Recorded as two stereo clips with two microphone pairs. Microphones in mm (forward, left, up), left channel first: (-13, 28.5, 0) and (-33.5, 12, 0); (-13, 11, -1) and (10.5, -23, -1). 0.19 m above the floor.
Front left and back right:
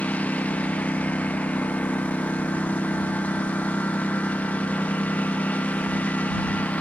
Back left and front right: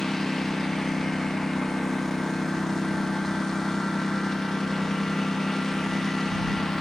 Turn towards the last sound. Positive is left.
turn(degrees=40)